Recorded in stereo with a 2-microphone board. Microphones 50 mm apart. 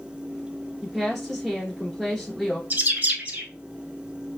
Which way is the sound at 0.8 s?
Centre (ahead or behind).